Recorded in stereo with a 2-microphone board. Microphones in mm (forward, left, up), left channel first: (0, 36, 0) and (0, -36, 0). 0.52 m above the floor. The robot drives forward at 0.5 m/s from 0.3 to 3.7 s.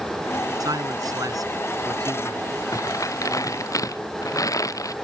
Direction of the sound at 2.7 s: 50° left (ahead or behind).